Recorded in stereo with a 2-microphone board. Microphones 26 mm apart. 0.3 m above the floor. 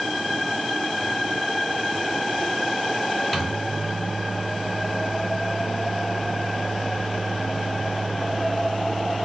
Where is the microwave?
5° left (ahead or behind), 0.7 m.